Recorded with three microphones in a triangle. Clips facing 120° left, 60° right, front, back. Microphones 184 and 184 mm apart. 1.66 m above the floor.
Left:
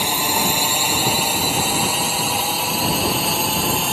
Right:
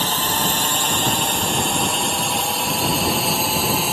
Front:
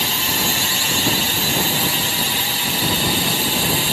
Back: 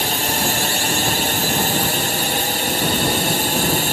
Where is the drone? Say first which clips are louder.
Left 1 dB, back 3 dB; 165° right; by 3.9 s 150° right.